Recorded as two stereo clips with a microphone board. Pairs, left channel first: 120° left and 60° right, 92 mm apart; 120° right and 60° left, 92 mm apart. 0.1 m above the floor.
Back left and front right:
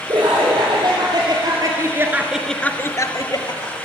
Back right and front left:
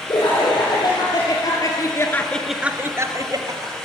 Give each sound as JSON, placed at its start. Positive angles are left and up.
{"t": 0.1, "sound": "laughter", "azimuth_deg": -90, "distance_m": 3.5}